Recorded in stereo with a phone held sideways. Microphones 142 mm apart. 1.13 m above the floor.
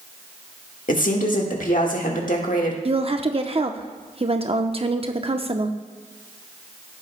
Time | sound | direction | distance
0.9 | a woman speaking | 70° left (ahead or behind) | 1.6 m
2.9 | a woman speaking | 45° right (ahead or behind) | 0.8 m